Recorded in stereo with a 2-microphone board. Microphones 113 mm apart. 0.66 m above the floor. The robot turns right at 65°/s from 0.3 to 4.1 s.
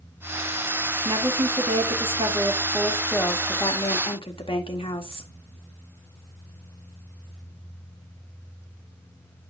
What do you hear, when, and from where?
1.1 s a woman speaking: 130° right, 1.6 m; by 5.3 s 70° left, 1.6 m